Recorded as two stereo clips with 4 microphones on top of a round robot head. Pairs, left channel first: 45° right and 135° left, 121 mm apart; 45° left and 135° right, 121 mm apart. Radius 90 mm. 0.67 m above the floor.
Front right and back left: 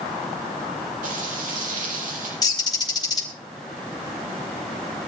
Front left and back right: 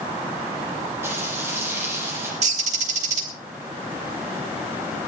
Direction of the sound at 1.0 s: 155° left.